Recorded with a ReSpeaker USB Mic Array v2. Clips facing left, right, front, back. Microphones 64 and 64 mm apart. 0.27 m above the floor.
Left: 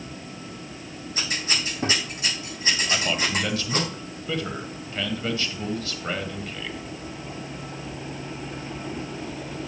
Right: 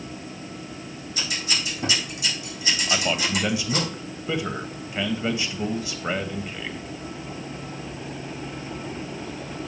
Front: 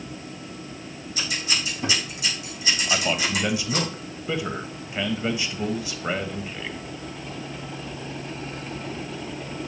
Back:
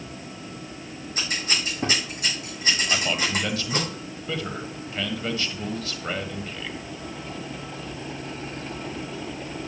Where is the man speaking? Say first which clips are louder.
Right 3 dB, front 1 dB; 45° right, 1.0 m.